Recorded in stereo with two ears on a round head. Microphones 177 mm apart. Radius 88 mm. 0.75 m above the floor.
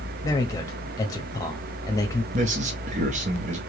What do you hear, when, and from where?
0.2 s a man speaking: 15° left (ahead or behind), 0.8 m
2.3 s a man speaking: 40° right (ahead or behind), 0.8 m